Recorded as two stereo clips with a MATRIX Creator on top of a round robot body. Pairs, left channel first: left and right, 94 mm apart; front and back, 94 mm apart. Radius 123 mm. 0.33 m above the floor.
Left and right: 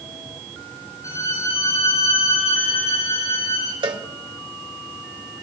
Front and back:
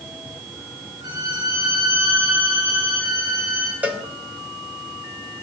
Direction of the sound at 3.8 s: 110° right.